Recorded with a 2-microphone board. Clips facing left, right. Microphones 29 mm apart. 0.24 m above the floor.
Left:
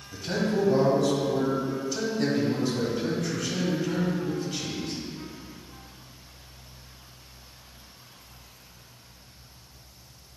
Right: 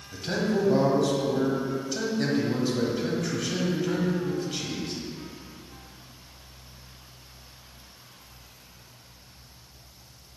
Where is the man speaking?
15° right (ahead or behind), 1.5 m.